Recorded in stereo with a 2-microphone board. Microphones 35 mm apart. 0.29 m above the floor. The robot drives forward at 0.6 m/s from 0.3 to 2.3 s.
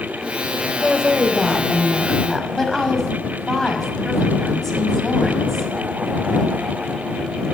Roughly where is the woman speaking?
Centre.